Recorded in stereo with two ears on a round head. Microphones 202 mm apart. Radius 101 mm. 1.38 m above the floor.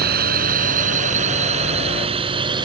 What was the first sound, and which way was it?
A drone, 45° right (ahead or behind).